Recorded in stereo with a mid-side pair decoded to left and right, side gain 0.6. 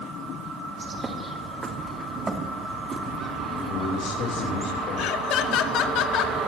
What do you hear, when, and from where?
0.8 s a bird: 20° right, 2.5 m
3.7 s a man speaking: 60° left, 4.5 m
5.0 s laughter: 65° left, 1.7 m